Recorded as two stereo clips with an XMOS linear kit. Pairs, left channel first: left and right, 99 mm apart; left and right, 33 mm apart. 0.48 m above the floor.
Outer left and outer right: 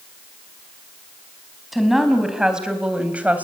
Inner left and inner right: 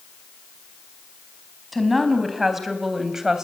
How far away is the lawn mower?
No lawn mower in this recording.